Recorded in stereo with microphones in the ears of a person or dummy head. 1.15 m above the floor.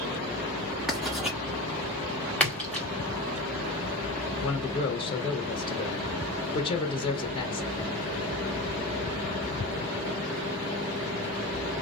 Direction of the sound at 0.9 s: 5° right (ahead or behind).